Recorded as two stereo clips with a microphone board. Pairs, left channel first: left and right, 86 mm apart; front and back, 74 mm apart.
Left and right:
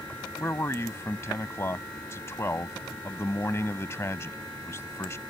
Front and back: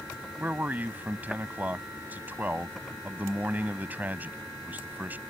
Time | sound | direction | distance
0.4 | a man speaking | 130° left | ?